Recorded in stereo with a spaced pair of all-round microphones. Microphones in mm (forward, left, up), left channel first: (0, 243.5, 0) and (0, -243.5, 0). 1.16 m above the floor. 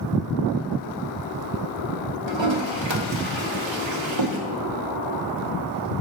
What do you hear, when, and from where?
2.3 s a toilet flushing: 60° right (ahead or behind), 1.0 m